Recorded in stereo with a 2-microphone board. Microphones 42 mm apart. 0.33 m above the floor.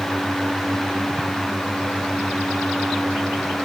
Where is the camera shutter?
I don't hear a camera shutter.